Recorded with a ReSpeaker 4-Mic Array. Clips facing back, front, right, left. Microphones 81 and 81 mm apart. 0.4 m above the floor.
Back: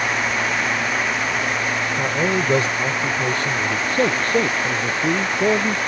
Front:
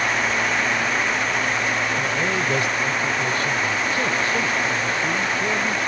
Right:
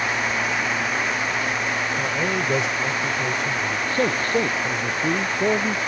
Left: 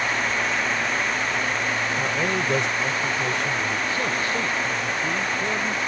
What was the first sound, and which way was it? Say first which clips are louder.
A man speaking: back 2 dB, even; 175° right.